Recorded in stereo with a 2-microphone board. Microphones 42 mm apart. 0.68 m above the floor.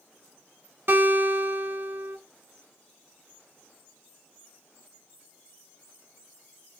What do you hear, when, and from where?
0.9 s a guitar: 55° right (ahead or behind), 2.5 m